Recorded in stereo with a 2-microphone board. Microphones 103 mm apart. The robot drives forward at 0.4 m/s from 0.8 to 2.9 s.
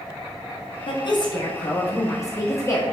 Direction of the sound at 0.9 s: 50° left (ahead or behind).